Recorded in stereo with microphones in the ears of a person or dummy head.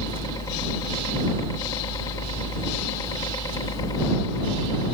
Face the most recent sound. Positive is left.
turn(degrees=20)  # may be behind; listen again after turning